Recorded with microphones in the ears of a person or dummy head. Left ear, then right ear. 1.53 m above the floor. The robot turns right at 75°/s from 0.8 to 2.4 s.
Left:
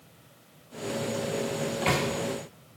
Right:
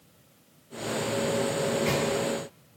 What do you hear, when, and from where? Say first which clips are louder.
1.6 s a microwave: right 1 dB; 25° left (ahead or behind), 0.7 m; by 2.1 s 10° left (ahead or behind), 0.7 m